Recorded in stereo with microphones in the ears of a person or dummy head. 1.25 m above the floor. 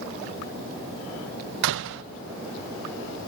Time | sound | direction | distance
1.6 | a door slam | 70° right (ahead or behind) | 0.6 m